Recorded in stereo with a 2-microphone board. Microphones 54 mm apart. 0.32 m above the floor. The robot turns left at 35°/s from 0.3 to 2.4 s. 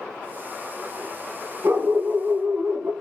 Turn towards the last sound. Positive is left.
turn(degrees=-40)  # may be behind; listen again after turning